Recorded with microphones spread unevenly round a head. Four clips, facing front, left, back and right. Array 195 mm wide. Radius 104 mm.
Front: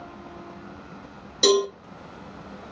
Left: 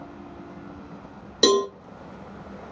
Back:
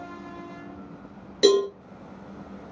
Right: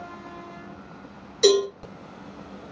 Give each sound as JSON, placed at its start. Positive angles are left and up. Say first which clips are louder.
{"t": 1.4, "sound": "a cowbell", "louder": "right 1 dB, back 1 dB", "azimuth_deg": 95, "distance_m": 1.3}